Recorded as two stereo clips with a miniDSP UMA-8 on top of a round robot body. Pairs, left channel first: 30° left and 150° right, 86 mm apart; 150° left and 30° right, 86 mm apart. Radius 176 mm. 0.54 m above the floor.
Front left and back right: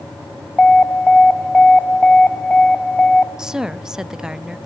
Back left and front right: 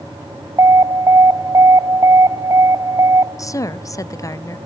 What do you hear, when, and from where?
0.6 s an alarm: 40° right, 0.9 m
3.4 s a woman speaking: 135° left, 1.0 m